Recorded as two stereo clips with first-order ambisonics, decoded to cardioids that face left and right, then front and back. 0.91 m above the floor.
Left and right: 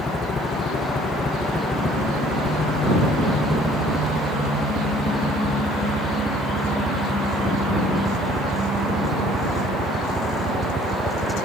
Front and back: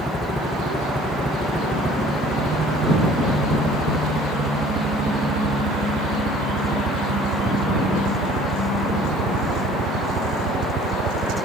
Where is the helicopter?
70° left; by 11.5 s 160° right.